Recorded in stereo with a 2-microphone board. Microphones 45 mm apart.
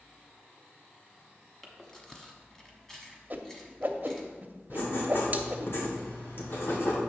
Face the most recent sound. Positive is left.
turn(degrees=60)  # may be behind; listen again after turning